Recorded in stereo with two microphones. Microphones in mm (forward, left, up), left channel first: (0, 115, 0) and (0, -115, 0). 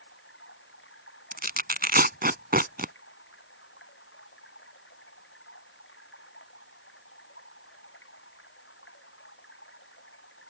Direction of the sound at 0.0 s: 60° left (ahead or behind).